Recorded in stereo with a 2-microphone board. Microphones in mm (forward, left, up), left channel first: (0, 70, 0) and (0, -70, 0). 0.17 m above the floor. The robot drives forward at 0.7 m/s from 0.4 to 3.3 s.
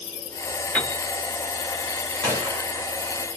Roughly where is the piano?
Centre.